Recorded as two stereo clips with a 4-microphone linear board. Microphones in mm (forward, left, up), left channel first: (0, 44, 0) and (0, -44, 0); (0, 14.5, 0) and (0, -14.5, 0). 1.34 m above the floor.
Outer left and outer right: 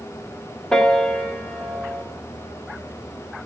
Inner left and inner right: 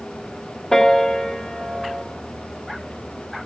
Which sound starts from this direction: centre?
A piano, at 0.7 s.